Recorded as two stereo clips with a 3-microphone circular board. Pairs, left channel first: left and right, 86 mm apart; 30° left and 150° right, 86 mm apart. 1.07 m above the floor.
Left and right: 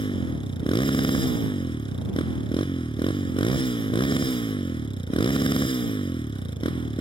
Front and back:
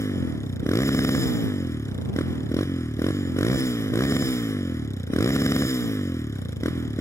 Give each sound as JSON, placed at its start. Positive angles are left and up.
{"t": 0.0, "sound": "a motorcycle", "azimuth_deg": 85}